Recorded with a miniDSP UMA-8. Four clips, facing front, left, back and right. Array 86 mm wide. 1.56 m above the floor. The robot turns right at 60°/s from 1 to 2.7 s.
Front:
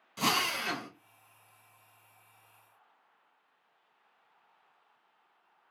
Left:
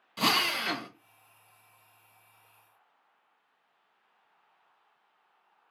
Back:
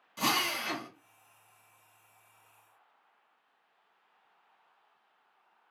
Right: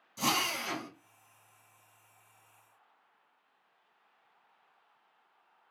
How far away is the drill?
About 0.8 m.